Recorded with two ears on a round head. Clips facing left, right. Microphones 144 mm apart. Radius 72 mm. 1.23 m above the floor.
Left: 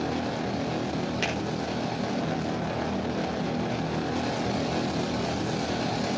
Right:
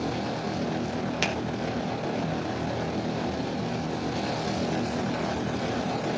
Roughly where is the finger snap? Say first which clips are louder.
Right 1 dB; right.